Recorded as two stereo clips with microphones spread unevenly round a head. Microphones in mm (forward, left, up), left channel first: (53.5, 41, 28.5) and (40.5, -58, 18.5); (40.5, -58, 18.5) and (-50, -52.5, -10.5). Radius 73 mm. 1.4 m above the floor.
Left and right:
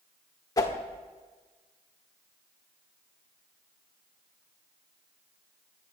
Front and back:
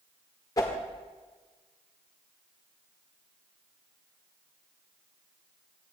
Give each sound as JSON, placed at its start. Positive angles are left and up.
{"t": 0.6, "sound": "a whoosh", "azimuth_deg": 35, "distance_m": 1.6}